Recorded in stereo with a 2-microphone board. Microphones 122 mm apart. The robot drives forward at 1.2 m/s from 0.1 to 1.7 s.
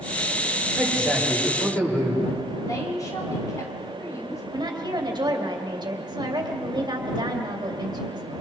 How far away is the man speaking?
About 7 m.